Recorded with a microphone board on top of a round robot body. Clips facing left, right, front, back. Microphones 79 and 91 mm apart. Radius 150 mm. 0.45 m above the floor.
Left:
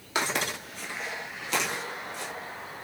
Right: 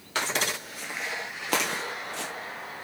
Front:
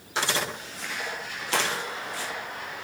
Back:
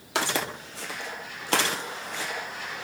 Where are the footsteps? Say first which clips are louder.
Even, even; 165° left, 1.1 m; by 2.3 s 110° right, 1.0 m.